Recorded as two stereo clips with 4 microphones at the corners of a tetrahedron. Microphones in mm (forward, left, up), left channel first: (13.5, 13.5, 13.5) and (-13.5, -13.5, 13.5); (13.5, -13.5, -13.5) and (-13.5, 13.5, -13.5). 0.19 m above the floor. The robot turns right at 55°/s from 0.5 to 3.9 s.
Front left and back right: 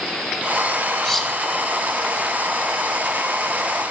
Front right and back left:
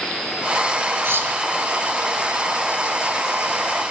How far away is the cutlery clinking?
About 5 m.